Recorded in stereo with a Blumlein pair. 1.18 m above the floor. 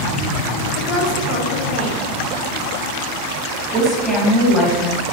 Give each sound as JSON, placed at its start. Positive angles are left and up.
{"t": 0.8, "sound": "a woman speaking", "azimuth_deg": 35, "distance_m": 0.7}
{"t": 3.7, "sound": "a woman speaking", "azimuth_deg": -10, "distance_m": 1.7}